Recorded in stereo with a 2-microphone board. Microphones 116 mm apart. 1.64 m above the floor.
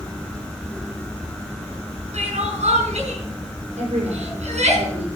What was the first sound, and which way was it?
Crying, 75° right (ahead or behind).